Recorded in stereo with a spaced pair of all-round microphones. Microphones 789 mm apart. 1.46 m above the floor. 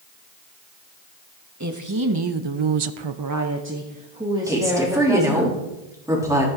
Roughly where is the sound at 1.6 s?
Right.